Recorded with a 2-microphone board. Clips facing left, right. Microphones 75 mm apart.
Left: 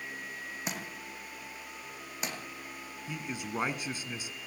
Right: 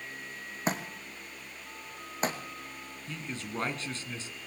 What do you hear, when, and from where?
0.7 s a thud: 35° right (ahead or behind), 3.5 m
3.1 s a man speaking: 15° left (ahead or behind), 2.0 m